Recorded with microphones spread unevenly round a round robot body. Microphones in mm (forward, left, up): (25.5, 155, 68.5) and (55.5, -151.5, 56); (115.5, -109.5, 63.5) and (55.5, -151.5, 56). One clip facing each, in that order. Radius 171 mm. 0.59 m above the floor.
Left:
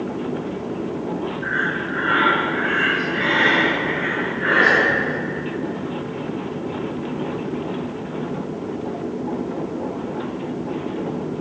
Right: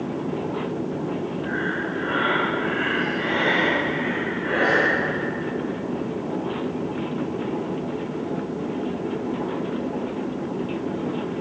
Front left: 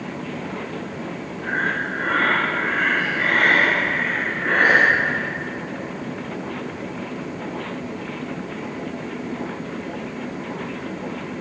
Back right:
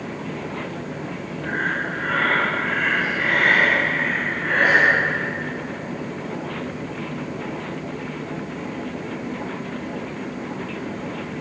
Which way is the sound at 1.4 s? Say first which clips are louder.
Even, front left 1 dB; 125° left.